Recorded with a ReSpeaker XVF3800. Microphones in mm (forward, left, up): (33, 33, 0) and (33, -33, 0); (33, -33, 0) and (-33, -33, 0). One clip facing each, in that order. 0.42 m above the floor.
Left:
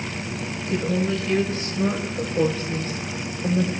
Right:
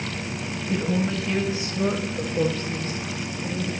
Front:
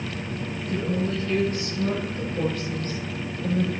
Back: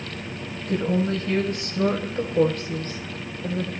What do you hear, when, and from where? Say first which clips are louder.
0.6 s a woman speaking: left 1 dB, back 4 dB; 150° right, 2.5 m; by 3.7 s 100° left, 1.5 m